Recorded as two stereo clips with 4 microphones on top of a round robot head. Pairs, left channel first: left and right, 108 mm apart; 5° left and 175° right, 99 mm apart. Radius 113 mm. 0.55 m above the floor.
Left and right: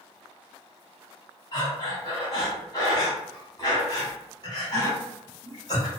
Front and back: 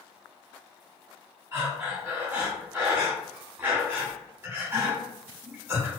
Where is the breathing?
120° left, 1.4 m.